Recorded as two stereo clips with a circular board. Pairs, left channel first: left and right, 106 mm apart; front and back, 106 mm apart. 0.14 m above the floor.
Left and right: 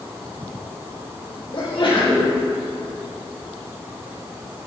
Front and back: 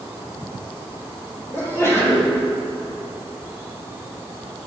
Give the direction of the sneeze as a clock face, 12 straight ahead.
10 o'clock.